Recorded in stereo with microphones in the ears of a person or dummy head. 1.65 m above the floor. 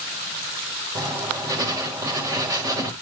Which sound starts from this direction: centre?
Writing, at 0.9 s.